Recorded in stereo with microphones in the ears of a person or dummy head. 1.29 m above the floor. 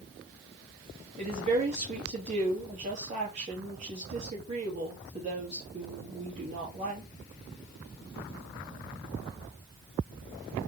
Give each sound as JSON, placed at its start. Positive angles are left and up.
{"t": 1.2, "sound": "a woman speaking", "side_deg": -35, "distance_m": 2.5}